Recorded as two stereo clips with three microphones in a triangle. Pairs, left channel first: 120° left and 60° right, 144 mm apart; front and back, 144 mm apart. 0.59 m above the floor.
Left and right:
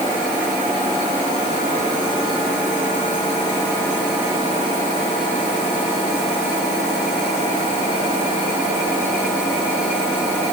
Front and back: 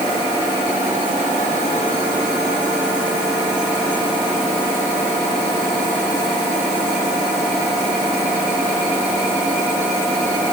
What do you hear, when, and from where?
Only background noise.